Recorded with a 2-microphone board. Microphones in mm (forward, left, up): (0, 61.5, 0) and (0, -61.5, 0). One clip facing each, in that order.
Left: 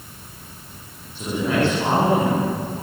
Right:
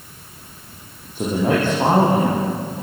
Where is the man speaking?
45° right (ahead or behind), 8.5 m.